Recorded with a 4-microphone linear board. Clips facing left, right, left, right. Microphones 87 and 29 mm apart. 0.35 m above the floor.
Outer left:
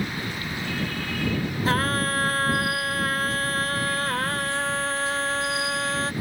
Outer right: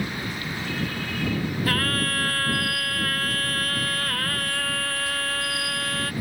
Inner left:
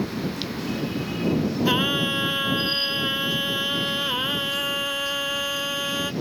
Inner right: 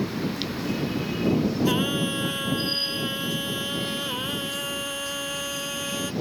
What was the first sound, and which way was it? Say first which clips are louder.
Singing: outer left 5 dB, inner left 2 dB; 25° left (ahead or behind).